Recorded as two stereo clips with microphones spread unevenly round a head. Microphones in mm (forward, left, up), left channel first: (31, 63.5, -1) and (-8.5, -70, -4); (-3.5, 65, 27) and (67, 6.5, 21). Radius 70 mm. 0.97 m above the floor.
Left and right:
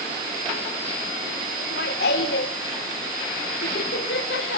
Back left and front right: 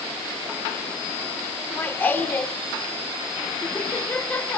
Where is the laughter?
70° left, 3.5 m.